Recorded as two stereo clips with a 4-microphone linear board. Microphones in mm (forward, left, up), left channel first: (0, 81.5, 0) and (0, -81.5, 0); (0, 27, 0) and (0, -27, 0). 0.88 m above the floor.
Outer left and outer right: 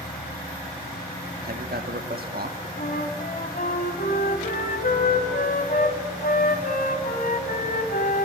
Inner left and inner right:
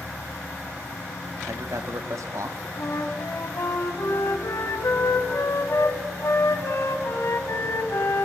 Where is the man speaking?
70° right (ahead or behind), 1.4 m.